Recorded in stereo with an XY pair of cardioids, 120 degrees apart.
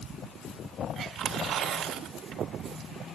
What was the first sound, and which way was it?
Tearing paper, 70° right.